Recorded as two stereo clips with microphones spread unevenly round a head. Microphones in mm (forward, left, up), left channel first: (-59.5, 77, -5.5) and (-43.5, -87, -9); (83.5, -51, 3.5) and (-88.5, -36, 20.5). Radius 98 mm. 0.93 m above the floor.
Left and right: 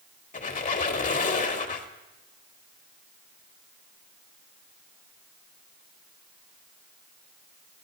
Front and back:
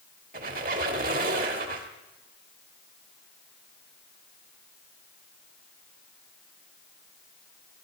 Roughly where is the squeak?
Behind left.